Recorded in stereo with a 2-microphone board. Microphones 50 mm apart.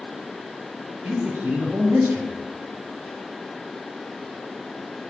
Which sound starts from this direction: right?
A man speaking, at 1.0 s.